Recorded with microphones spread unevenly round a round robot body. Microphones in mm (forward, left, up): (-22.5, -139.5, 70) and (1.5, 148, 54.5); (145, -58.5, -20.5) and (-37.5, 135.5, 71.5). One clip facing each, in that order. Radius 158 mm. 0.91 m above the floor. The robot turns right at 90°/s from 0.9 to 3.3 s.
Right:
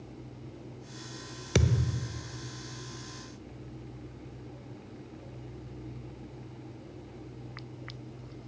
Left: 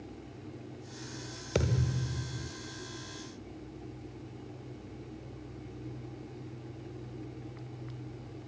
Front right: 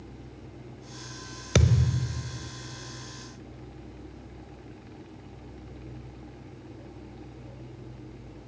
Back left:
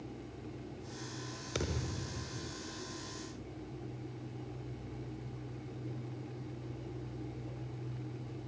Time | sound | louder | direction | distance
1.6 | a thud | right 2 dB, front right 11 dB | 35° right | 1.5 m